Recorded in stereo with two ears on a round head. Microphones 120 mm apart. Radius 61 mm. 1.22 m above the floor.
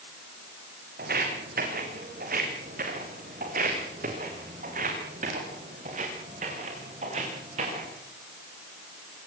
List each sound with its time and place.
1.0 s footsteps: 70° right (ahead or behind), 5 m; by 7.9 s 50° right (ahead or behind), 8 m